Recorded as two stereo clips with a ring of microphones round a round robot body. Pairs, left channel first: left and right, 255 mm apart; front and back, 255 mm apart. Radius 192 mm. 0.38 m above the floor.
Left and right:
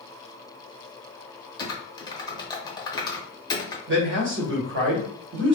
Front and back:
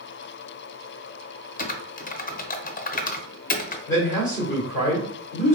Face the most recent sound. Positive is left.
turn(degrees=-75)